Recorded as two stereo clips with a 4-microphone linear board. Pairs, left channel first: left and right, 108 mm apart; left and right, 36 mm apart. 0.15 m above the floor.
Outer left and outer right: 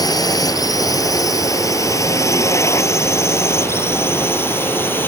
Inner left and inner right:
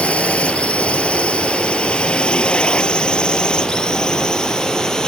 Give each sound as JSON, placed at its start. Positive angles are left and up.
{"t": 0.0, "sound": "a drone", "side_deg": 35}